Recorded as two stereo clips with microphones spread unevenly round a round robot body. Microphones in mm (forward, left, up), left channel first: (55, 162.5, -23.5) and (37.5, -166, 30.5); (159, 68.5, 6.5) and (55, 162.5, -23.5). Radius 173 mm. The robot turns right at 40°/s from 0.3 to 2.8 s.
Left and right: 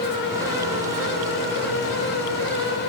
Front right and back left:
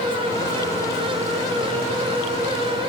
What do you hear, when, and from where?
Only background noise.